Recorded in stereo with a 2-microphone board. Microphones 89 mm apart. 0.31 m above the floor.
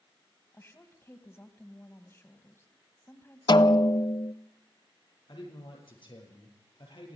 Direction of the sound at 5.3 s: 65° left (ahead or behind).